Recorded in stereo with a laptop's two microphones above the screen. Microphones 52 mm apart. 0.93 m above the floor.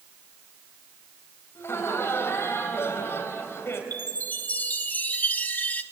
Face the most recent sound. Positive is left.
turn(degrees=35)  # may be behind; listen again after turning